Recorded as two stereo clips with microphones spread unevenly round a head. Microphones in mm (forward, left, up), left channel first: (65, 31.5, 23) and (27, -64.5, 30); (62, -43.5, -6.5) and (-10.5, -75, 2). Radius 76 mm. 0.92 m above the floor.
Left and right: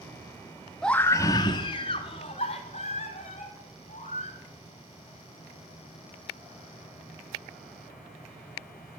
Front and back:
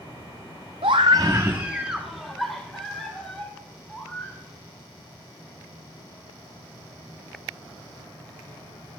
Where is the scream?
155° left, 0.8 m; by 4.4 s 110° left, 5 m.